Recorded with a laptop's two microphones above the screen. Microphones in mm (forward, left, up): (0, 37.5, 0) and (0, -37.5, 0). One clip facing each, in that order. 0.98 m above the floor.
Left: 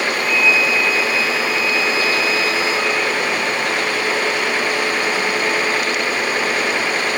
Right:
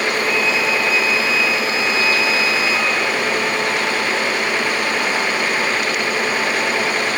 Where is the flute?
75° right (ahead or behind), 6.5 m.